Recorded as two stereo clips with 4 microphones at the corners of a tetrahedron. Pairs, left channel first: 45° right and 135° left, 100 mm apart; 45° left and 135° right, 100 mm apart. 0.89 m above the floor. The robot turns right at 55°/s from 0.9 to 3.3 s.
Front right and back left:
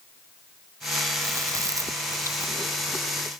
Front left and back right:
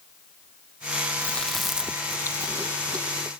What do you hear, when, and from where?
1.2 s chewing: 110° left; by 3.3 s 135° right